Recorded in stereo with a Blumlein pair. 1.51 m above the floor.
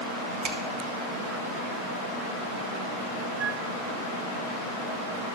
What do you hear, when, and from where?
0.4 s a finger snap: 30° right, 1.4 m
3.4 s a flute: 35° right, 0.6 m